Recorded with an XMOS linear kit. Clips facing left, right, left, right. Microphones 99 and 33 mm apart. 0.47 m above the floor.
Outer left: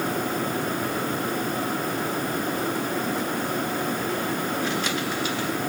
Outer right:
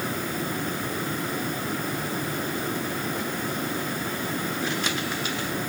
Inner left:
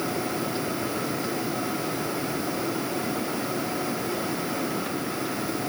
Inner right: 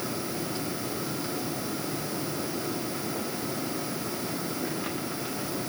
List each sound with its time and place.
Only background noise.